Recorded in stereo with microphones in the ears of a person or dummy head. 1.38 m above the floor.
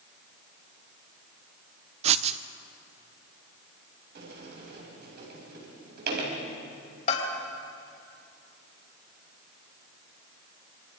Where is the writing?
35° right (ahead or behind), 0.6 m.